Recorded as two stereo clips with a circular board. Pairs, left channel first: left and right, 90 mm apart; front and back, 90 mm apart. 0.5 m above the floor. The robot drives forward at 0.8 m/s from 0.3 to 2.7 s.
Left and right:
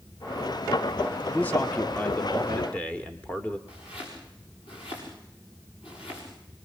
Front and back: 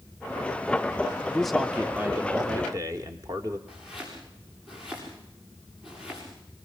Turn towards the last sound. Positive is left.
turn(degrees=95)